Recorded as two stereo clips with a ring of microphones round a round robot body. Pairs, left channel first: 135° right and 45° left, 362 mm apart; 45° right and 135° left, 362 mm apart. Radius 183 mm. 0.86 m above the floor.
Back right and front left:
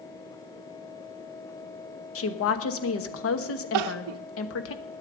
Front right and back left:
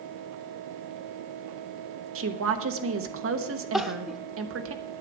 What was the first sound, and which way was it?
A woman speaking, straight behind.